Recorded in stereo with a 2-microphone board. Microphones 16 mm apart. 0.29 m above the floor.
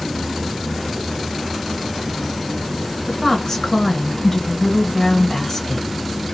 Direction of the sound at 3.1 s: 30° left (ahead or behind).